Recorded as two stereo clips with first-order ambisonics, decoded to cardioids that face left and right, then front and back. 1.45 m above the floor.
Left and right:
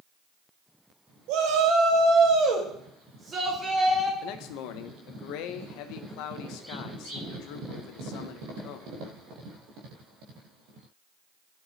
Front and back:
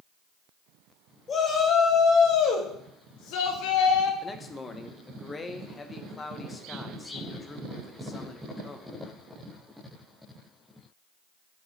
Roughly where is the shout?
Ahead right.